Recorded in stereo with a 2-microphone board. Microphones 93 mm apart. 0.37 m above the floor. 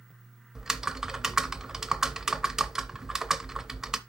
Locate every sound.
0.6 s typing on a keyboard: 5° right (ahead or behind), 0.5 m